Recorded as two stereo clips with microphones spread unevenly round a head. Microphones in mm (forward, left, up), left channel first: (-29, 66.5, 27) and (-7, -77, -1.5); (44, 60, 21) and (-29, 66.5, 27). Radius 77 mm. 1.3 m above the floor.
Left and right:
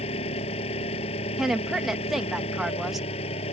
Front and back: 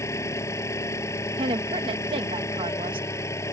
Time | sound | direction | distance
0.0 | an engine running | 45° left | ?
1.4 | a woman speaking | 170° right | ?